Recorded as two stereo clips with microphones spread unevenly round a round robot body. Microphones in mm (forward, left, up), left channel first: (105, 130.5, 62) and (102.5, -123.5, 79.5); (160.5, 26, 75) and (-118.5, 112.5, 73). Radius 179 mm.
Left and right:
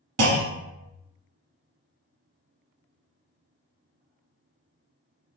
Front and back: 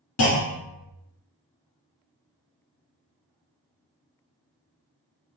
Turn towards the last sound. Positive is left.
turn(degrees=-65)